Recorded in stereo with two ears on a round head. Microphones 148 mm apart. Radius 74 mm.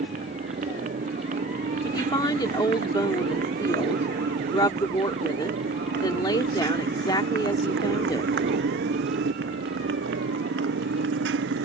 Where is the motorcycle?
50° right (ahead or behind); by 11.7 s 85° right.